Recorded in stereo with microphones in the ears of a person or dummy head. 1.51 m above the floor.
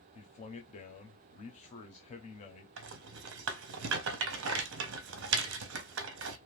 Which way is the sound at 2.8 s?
65° right (ahead or behind).